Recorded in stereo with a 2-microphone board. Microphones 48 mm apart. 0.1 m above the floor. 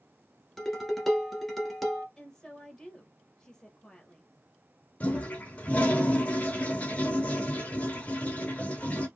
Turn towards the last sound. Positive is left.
turn(degrees=30)  # may be behind; listen again after turning